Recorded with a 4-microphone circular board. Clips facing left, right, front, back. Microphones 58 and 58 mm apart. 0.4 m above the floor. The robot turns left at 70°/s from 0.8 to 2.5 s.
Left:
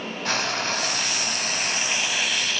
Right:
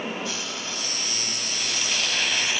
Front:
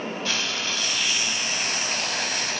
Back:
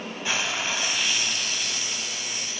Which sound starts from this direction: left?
Frying, at 0.2 s.